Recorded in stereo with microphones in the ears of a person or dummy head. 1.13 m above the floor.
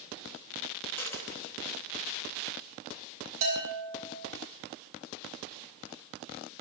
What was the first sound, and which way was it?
A dropped coin, 15° left (ahead or behind).